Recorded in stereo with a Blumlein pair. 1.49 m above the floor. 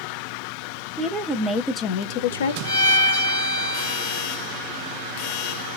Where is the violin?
60° left, 1.3 m.